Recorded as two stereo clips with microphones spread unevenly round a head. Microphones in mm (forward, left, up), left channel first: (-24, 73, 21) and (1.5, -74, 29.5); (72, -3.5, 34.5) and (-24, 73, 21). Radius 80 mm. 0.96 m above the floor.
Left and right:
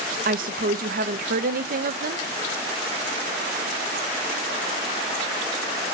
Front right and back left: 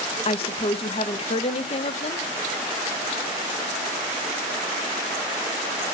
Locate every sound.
0.2 s a woman speaking: 80° right, 0.8 m